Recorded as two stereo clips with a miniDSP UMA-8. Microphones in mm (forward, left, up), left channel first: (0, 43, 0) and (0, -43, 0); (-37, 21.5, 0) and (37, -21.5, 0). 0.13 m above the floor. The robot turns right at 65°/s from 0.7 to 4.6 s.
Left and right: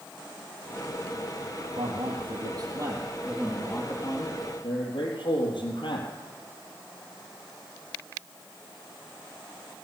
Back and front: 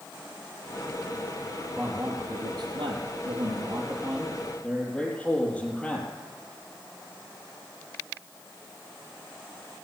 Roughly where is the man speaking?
Right.